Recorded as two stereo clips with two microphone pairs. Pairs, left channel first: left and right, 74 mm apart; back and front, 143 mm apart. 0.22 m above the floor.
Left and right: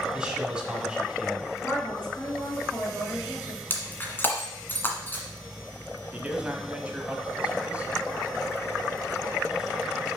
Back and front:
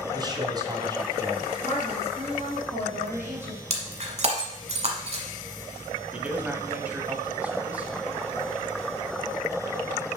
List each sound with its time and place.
0.1 s a man speaking: 30° right, 1.4 m
1.6 s a woman speaking: 30° left, 3.5 m
3.7 s breaking glass: 30° left, 1.2 m
6.1 s a man speaking: 65° right, 1.1 m